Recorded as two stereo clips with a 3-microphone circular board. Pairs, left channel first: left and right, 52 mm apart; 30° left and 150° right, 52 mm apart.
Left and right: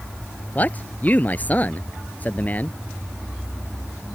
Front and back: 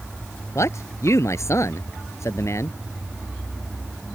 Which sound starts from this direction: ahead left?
A man speaking, at 0.6 s.